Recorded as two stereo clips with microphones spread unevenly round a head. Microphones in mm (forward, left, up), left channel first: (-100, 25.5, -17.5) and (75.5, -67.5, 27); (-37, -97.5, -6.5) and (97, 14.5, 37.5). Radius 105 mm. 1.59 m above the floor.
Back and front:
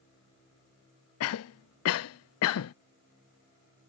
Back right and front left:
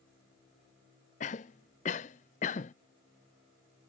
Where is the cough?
160° left.